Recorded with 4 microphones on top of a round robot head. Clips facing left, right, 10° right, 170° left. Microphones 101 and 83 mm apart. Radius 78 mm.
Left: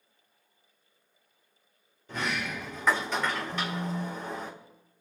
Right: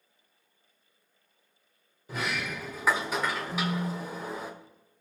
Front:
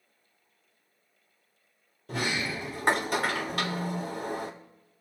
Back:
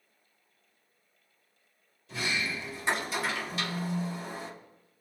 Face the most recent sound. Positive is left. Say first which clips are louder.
# right 1 dB, front 2 dB
turn(degrees=-110)